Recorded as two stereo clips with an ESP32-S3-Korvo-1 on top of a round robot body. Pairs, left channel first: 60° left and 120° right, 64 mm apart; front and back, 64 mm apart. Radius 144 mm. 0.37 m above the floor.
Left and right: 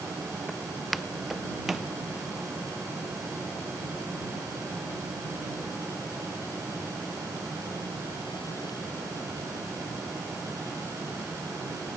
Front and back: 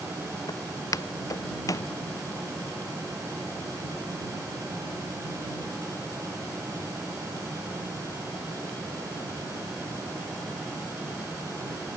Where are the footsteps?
30° right; by 1.9 s 35° right.